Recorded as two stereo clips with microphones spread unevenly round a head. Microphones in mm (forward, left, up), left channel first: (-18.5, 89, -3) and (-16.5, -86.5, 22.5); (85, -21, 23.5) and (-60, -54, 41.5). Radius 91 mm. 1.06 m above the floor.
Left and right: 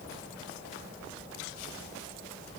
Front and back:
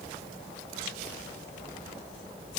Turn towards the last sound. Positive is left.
No sound to turn to.